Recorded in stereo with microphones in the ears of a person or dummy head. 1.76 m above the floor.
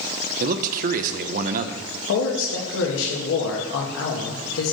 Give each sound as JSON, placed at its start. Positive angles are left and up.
{"t": 0.4, "sound": "a man speaking", "side_deg": -45, "distance_m": 0.5}
{"t": 2.1, "sound": "a man speaking", "side_deg": 75, "distance_m": 1.4}